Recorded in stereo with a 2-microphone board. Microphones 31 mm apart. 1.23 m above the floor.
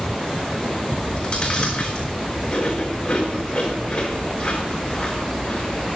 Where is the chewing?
35° left (ahead or behind), 4 m.